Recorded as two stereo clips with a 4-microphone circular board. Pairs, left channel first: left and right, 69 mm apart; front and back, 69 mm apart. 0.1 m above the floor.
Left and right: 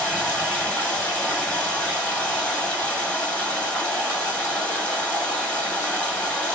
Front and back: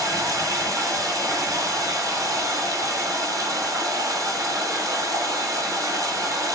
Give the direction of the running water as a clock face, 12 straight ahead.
7 o'clock.